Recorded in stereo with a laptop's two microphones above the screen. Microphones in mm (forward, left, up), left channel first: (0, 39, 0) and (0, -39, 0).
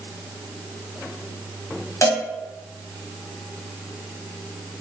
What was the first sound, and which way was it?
A cowbell, 40° left (ahead or behind).